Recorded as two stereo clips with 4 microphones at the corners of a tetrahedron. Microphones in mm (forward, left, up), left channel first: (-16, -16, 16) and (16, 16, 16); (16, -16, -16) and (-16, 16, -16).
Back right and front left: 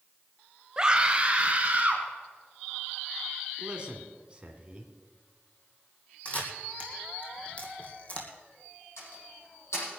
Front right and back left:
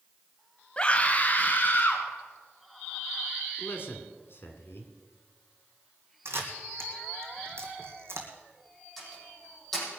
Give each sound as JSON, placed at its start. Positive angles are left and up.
{"t": 0.8, "sound": "a scream", "azimuth_deg": -10, "distance_m": 1.0}
{"t": 3.6, "sound": "a man speaking", "azimuth_deg": -20, "distance_m": 2.5}
{"t": 6.2, "sound": "a camera shutter", "azimuth_deg": 165, "distance_m": 2.5}
{"t": 9.0, "sound": "a door slam", "azimuth_deg": -130, "distance_m": 7.0}